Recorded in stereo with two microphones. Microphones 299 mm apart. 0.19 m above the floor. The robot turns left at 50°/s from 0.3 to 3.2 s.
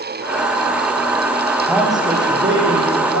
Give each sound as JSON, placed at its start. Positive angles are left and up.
{"t": 1.7, "sound": "a man speaking", "azimuth_deg": 0, "distance_m": 7.5}